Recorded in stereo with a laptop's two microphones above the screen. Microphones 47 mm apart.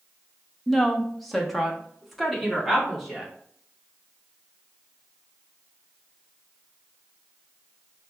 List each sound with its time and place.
0.7 s a woman speaking: 5° left (ahead or behind), 0.9 m; by 3.3 s centre (ahead or behind), 2.5 m